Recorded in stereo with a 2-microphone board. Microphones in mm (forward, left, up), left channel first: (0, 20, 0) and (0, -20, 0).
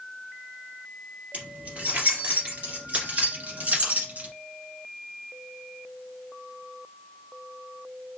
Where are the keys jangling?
35° right (ahead or behind), 2.5 m; by 4.3 s 40° right (ahead or behind), 1.4 m.